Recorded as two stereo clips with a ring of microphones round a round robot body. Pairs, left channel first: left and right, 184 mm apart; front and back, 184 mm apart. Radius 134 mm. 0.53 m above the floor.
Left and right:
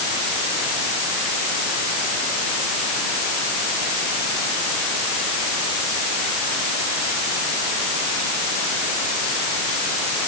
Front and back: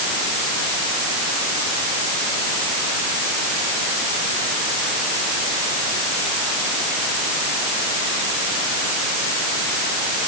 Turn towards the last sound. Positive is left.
No sound to turn to.